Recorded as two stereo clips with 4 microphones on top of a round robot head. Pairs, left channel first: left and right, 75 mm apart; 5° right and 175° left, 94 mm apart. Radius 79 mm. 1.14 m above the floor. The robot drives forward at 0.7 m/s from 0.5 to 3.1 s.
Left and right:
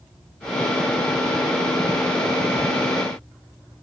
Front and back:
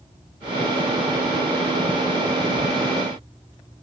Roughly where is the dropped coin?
I don't hear a dropped coin.